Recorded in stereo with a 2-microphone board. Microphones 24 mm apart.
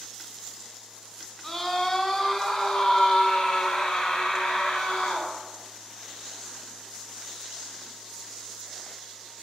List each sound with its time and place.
1.4 s a scream: 25° left (ahead or behind), 2 m; by 5.3 s 55° left (ahead or behind), 1.8 m